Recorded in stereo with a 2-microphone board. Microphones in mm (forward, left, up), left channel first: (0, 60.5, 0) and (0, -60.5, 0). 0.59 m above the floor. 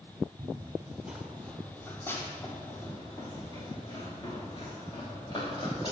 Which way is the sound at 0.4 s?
35° right (ahead or behind).